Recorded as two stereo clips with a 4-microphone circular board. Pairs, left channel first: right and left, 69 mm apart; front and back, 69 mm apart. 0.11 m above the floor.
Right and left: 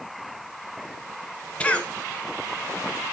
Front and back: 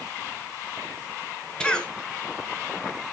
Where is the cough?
55° right, 1.2 m.